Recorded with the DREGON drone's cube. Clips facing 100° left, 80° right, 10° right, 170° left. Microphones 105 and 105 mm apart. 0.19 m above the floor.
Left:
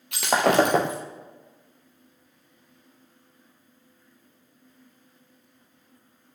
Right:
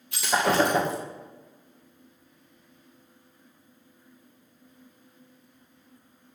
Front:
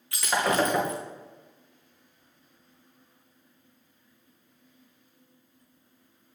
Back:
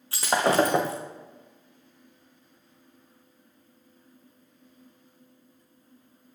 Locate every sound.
0.1 s breaking glass: 115° left, 2.5 m